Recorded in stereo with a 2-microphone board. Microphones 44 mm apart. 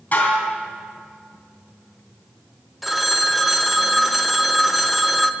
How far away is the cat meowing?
I don't hear a cat meowing.